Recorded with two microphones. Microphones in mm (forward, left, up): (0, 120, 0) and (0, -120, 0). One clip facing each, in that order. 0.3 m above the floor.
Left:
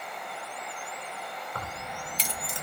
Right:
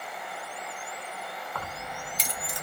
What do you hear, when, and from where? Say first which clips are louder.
1.6 s keys jangling: right 1 dB; 35° left (ahead or behind), 1.2 m; by 2.6 s 25° left (ahead or behind), 0.7 m